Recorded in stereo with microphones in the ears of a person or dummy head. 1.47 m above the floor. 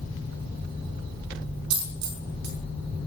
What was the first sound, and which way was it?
A dropped coin, 60° right (ahead or behind).